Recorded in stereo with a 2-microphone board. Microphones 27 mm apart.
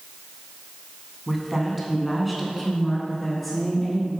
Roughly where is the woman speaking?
Centre.